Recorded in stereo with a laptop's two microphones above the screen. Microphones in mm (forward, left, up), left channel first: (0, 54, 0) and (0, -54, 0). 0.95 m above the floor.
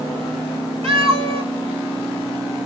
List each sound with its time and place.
0.8 s a cat meowing: 65° right (ahead or behind), 2.0 m